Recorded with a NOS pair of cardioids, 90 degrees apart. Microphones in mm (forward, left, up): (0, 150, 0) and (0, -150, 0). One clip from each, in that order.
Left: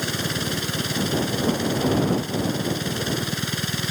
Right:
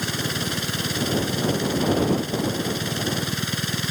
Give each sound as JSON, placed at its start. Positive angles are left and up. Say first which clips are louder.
{"t": 0.0, "sound": "a machine running", "louder": "even", "azimuth_deg": -10}